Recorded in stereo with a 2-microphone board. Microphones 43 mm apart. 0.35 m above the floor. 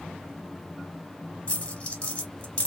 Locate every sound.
1.5 s a dropped coin: 30° left (ahead or behind), 1.1 m